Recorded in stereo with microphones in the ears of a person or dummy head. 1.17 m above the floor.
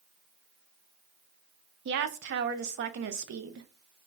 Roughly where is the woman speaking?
Right.